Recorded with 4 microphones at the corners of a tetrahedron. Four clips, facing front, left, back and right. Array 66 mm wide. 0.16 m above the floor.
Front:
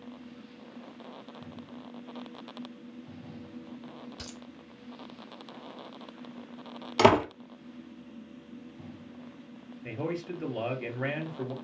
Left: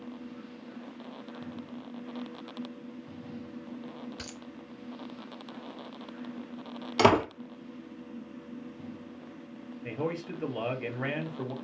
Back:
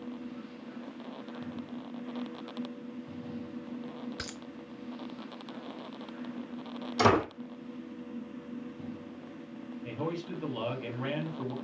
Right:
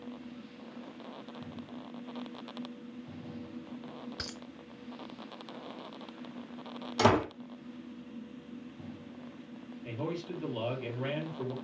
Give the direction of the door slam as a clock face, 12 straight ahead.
11 o'clock.